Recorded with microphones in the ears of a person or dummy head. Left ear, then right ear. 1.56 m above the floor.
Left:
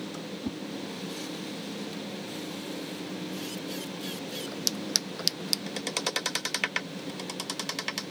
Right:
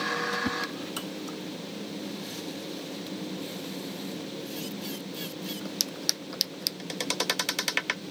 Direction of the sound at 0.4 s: 65° right (ahead or behind).